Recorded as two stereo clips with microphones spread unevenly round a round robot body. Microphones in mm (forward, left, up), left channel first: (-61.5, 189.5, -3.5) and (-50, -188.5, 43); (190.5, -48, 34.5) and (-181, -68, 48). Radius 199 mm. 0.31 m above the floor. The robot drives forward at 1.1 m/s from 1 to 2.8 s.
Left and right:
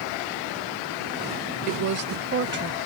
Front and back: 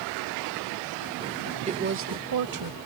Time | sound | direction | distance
1.7 | a woman speaking | 110° right | ?